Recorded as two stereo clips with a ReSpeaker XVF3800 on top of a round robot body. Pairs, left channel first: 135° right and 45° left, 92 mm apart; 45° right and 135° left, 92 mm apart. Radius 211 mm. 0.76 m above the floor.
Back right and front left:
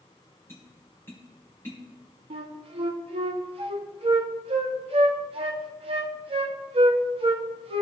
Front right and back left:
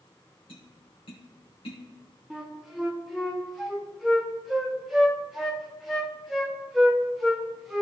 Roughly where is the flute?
Ahead left.